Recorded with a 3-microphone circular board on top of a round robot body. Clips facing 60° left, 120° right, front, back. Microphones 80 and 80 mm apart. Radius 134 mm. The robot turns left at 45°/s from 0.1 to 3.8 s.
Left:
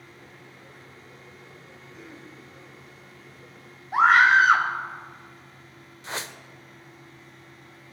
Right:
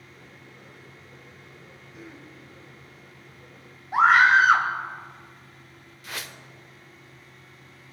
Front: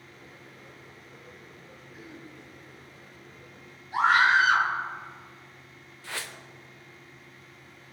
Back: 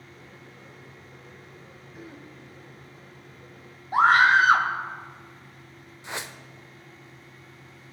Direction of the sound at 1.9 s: 155° left.